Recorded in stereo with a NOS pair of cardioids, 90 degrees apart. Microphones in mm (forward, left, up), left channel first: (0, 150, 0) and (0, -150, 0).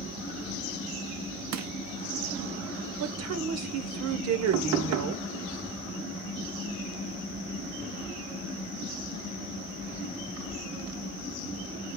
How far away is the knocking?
About 0.6 m.